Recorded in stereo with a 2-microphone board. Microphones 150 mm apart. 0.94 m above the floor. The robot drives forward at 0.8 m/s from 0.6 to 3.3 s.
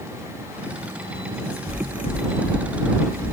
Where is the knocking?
85° left, 6 m; by 3.3 s 75° left (ahead or behind), 6.5 m.